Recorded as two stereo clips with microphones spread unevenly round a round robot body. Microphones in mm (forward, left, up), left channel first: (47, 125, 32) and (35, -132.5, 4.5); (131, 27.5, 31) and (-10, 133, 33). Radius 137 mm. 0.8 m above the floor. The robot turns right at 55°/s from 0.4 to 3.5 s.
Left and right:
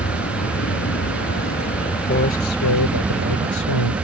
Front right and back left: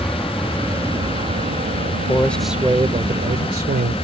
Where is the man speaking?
30° left; by 3.9 s 110° left.